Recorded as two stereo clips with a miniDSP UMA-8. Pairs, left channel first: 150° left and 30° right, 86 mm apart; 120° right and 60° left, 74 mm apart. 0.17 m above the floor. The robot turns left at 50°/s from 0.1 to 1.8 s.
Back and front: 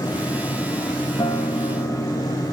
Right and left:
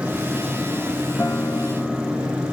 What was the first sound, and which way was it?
A guitar, straight behind.